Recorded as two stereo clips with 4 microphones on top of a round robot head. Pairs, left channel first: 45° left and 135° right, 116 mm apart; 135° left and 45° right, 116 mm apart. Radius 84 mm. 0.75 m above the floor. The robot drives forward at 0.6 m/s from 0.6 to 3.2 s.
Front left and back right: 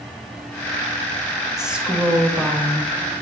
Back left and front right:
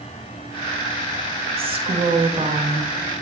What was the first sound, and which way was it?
A woman speaking, 50° right.